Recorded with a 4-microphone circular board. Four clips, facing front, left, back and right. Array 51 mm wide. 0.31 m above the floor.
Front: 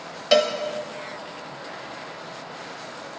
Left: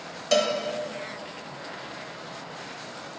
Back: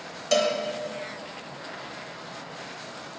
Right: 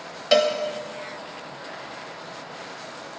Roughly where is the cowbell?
Ahead right.